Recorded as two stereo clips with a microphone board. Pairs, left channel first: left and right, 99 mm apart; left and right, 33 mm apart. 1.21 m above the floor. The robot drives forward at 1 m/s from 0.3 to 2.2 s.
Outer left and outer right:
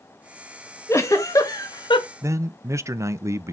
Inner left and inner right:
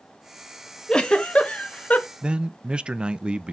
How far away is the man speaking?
About 0.6 m.